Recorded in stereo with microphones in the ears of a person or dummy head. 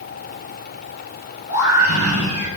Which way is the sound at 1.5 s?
80° left.